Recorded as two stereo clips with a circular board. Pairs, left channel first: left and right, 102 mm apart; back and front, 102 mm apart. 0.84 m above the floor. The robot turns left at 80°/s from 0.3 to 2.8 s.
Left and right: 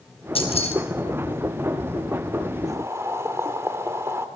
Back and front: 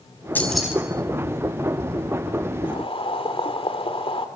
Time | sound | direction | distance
0.3 | keys jangling | 110° left | 4.5 m
2.6 | boiling | 140° right | 2 m